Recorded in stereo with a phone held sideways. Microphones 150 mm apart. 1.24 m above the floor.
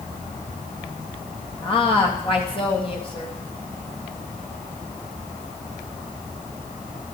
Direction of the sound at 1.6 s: 35° left (ahead or behind).